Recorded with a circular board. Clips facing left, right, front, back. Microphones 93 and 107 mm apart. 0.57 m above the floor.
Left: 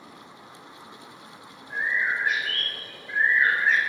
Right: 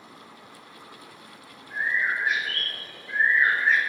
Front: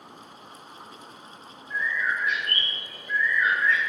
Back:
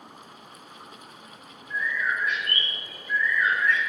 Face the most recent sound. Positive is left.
turn(degrees=65)